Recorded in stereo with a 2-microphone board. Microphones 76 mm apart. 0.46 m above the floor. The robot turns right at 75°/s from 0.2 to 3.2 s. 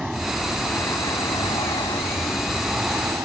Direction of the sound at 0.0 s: 10° right.